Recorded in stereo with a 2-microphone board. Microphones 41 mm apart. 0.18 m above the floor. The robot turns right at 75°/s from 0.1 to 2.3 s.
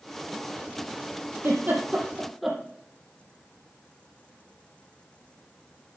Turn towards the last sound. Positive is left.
turn(degrees=0)  # may be behind; listen again after turning